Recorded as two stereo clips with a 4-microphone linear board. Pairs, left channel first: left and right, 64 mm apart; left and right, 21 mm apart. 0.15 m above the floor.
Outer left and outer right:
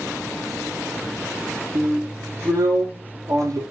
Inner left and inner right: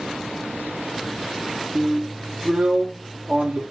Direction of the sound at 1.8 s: 70° right (ahead or behind).